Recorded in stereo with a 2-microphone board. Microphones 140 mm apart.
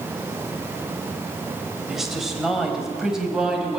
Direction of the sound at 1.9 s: Centre (ahead or behind).